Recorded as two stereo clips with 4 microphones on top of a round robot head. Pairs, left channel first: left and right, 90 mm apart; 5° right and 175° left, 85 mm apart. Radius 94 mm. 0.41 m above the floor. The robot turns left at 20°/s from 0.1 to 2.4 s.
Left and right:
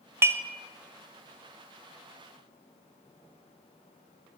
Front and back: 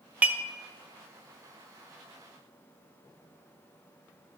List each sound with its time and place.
0.2 s dishes clattering: 125° right, 0.7 m; by 0.4 s 130° right, 0.7 m